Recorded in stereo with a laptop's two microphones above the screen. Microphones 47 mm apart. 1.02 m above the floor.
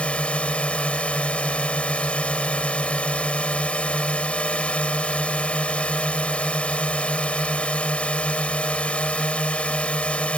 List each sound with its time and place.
0.0 s a drone: 30° left (ahead or behind)